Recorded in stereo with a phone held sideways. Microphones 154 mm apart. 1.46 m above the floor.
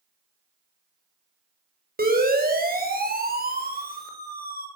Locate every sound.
2.0 s a siren: 75° right (ahead or behind), 8 m; by 4.7 s 85° right, 6.5 m